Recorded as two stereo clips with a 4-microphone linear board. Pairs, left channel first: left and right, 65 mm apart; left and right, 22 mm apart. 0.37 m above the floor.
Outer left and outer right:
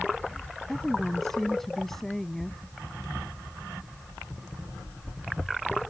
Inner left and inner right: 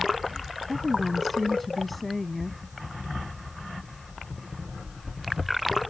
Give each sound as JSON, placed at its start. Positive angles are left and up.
{"t": 0.7, "sound": "a woman speaking", "side_deg": 5}